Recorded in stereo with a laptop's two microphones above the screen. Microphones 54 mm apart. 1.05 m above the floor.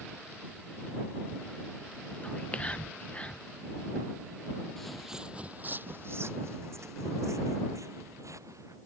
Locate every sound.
2.2 s whispering: 25° left (ahead or behind)
4.8 s footsteps: 5° left (ahead or behind); by 8.8 s 75° right (ahead or behind)